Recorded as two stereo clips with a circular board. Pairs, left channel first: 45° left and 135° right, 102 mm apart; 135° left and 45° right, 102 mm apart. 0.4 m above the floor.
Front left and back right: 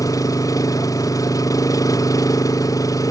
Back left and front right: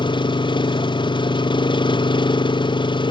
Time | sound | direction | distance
0.0 | an engine running | 100° left | ?